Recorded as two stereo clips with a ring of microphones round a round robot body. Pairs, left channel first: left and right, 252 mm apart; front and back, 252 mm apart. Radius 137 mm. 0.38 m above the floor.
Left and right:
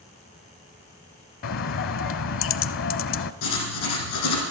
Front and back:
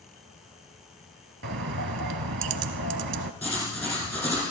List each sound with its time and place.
1.4 s a bird: 130° left, 0.6 m
3.4 s writing: 80° left, 4 m